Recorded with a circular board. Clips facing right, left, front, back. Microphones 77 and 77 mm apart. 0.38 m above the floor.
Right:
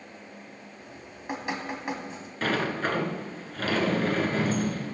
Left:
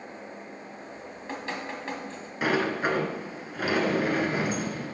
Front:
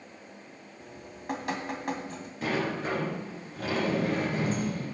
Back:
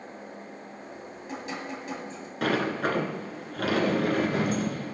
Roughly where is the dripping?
Ahead.